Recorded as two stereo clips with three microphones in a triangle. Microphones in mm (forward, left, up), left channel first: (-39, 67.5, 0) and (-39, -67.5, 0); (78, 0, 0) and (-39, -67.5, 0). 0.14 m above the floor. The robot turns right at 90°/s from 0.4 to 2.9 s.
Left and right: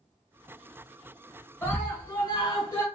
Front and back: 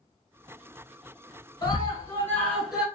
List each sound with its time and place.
1.6 s a scream: 30° left, 1.5 m; by 2.9 s 140° left, 1.5 m